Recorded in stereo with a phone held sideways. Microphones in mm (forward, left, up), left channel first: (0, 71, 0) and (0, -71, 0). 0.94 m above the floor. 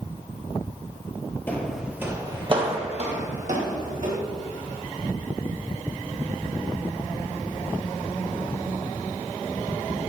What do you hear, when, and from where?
1.5 s footsteps: 15° left (ahead or behind), 1.1 m; by 4.2 s 70° right (ahead or behind), 2.5 m